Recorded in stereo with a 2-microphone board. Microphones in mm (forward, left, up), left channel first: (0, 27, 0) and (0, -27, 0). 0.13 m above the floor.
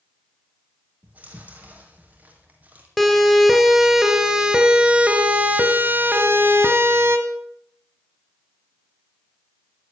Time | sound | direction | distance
1.0 | chewing | 30° right (ahead or behind) | 3.5 m
3.0 | a siren | 5° left (ahead or behind) | 2.5 m